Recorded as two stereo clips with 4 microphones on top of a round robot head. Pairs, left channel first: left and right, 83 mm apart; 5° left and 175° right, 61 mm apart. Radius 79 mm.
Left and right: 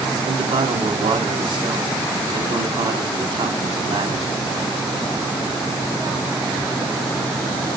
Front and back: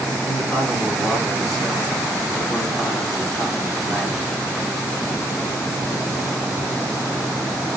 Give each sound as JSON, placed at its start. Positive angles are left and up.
{"t": 0.2, "sound": "a man speaking", "azimuth_deg": -75, "distance_m": 5.0}